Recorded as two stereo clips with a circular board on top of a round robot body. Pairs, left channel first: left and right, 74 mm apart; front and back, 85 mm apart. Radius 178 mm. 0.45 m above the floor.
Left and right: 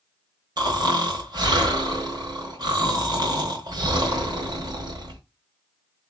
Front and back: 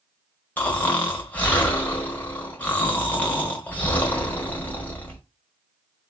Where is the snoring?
70° right, 1.4 m.